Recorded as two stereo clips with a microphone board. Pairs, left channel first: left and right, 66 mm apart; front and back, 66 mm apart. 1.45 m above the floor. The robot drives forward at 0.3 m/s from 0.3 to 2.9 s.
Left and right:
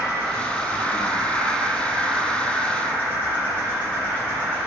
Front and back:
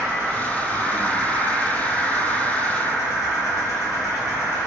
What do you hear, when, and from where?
0.0 s an insect: 145° left, 1.3 m; by 4.7 s 155° left, 2.0 m